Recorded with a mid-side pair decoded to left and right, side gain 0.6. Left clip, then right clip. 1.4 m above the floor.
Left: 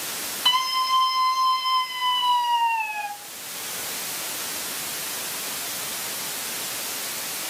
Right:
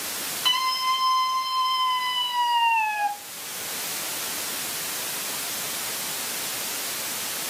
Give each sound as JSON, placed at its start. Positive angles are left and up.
{"t": 0.5, "sound": "a scream", "azimuth_deg": 0, "distance_m": 6.5}